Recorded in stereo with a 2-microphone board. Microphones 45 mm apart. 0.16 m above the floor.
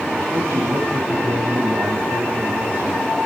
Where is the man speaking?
70° right (ahead or behind), 8 m.